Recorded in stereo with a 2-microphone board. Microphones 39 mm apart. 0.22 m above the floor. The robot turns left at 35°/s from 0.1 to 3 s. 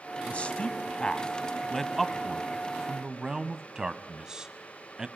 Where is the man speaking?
35° left (ahead or behind), 1.2 m; by 5.1 s 15° right (ahead or behind), 1.2 m.